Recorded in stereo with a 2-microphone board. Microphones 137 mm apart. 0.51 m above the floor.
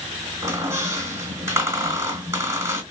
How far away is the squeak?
About 2.5 m.